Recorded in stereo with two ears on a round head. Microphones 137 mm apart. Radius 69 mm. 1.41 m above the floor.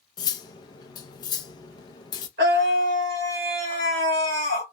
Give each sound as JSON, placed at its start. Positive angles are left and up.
{"t": 0.2, "sound": "cutlery clinking", "side_deg": 25, "distance_m": 0.5}
{"t": 2.4, "sound": "a scream", "side_deg": -70, "distance_m": 1.5}